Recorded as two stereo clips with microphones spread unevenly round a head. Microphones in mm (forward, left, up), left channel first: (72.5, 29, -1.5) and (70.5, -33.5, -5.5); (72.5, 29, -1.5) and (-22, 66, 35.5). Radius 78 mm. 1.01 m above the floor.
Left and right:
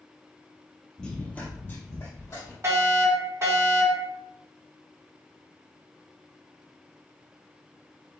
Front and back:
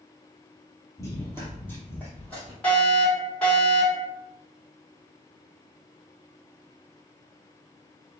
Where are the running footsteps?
50° left, 1.0 m; by 2.5 s 70° left, 1.6 m.